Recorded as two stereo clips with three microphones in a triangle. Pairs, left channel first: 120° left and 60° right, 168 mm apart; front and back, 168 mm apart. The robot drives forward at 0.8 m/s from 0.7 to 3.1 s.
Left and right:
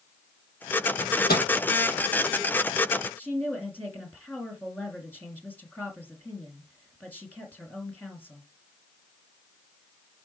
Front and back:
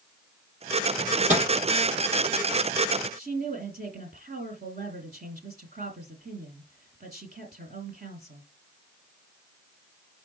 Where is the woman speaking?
160° right, 4 m.